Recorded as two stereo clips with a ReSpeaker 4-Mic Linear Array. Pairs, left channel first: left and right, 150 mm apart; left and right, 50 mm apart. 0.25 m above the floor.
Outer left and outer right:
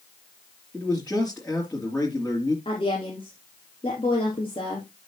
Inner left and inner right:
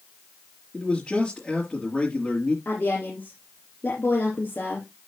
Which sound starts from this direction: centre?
A man speaking, at 0.7 s.